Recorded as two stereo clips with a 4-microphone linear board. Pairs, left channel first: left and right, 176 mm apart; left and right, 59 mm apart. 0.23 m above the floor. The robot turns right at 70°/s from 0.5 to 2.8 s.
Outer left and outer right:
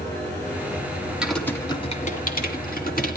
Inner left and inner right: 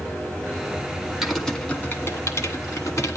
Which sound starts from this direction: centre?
Typing on a keyboard, at 1.2 s.